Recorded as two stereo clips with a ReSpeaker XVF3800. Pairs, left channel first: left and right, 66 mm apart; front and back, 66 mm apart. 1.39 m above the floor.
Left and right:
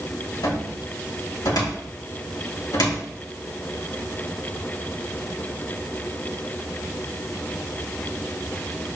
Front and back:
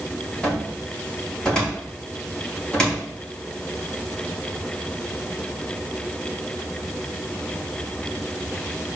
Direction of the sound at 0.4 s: 80° left.